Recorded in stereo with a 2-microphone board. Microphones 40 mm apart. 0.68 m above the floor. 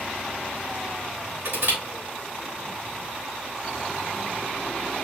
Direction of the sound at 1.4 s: 75° right (ahead or behind).